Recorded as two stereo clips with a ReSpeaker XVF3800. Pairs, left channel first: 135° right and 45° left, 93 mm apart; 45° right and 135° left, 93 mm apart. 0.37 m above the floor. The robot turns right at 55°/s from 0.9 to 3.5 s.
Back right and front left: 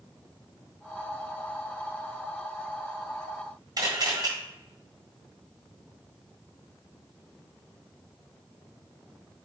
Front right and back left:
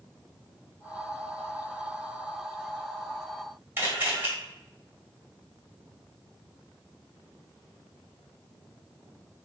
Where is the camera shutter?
75° left, 1.6 m.